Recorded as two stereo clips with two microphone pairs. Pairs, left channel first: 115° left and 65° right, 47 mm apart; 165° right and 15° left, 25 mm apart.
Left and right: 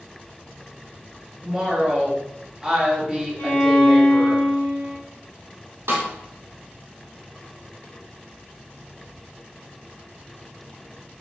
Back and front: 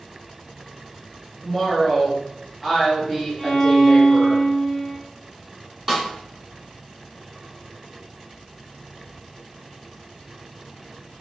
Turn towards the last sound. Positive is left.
turn(degrees=-50)